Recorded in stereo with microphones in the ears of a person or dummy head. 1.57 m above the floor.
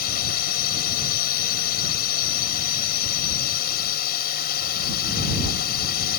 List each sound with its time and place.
0.0 s a drone: 55° left (ahead or behind)